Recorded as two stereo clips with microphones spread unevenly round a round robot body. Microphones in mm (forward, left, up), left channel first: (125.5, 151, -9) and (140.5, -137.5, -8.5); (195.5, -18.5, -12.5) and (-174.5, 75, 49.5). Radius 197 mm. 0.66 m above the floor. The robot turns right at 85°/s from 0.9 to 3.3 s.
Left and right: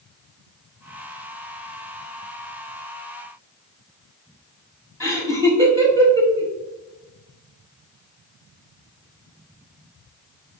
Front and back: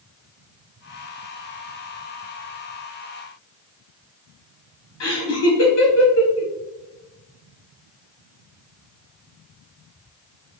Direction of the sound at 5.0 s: 20° right.